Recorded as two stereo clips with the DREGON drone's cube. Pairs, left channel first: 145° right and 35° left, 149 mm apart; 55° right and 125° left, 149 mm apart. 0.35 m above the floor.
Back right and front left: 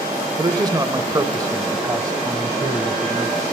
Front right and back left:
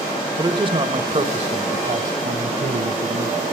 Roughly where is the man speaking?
Left.